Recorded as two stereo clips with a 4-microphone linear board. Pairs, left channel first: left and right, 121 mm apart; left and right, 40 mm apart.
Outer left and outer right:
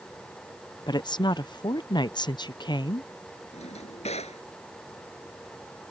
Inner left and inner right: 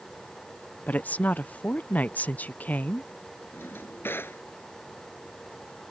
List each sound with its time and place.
0.9 s a woman speaking: 40° left (ahead or behind)
3.5 s a drawer: 65° left (ahead or behind)